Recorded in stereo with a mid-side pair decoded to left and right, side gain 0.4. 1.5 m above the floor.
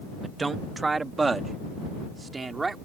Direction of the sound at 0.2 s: 30° right.